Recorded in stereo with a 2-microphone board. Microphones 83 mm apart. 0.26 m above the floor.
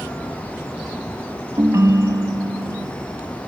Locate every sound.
1.6 s a ringtone: 45° right (ahead or behind), 0.6 m